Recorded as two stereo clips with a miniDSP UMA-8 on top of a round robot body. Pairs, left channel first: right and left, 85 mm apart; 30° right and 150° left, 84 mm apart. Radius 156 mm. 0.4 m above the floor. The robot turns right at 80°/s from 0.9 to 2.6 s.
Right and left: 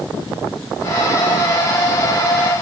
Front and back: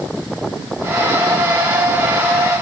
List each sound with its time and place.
Only background noise.